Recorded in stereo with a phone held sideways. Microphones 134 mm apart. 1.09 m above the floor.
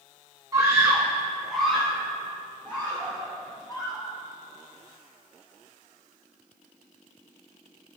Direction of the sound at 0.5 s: 25° right (ahead or behind).